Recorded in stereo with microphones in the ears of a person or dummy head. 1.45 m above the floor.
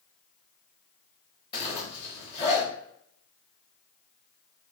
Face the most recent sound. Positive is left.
turn(degrees=30)  # may be behind; listen again after turning